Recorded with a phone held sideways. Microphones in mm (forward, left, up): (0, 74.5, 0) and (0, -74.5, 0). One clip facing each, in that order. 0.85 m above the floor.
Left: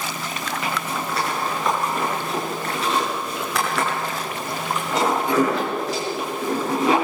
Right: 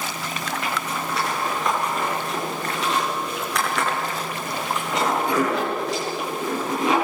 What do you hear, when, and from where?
0.6 s a zipper: centre (ahead or behind), 7 m